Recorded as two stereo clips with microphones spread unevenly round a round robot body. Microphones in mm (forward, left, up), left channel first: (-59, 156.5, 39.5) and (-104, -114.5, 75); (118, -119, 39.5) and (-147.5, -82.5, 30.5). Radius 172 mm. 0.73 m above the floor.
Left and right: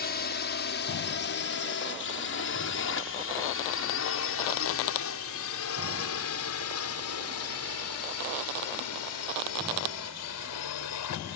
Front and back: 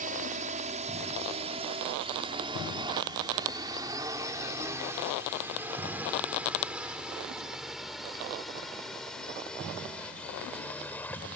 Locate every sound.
0.0 s a drone: 115° left; by 11.3 s 75° left